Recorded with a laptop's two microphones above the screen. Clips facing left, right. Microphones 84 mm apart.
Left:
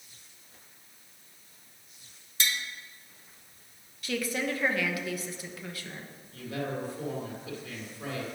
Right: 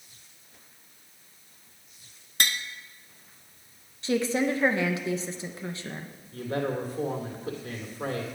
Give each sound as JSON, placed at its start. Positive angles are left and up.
{"t": 2.4, "sound": "tapping", "side_deg": -55, "distance_m": 0.7}
{"t": 4.0, "sound": "a woman speaking", "side_deg": -25, "distance_m": 0.8}
{"t": 6.3, "sound": "a man speaking", "side_deg": -45, "distance_m": 2.0}